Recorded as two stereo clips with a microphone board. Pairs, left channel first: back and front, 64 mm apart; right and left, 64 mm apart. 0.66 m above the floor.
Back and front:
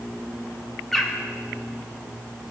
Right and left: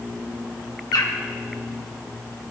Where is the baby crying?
I don't hear a baby crying.